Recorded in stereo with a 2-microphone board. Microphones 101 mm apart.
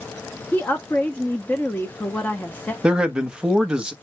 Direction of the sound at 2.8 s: 10° right (ahead or behind).